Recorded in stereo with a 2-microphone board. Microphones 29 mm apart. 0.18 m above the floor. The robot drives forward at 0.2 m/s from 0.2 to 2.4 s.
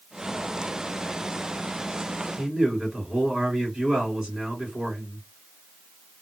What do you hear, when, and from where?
2.4 s a man speaking: 20° right (ahead or behind), 2 m